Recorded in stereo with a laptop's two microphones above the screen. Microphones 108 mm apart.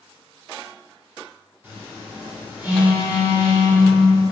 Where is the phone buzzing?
20° right (ahead or behind), 1.2 m.